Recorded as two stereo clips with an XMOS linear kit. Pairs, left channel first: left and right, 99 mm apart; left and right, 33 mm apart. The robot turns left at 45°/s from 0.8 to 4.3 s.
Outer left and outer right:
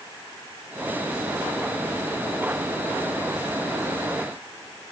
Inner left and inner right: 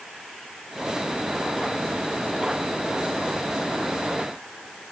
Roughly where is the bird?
No bird in this recording.